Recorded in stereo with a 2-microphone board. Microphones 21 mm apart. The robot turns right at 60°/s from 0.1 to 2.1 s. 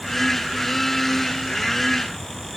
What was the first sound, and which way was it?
Only background noise.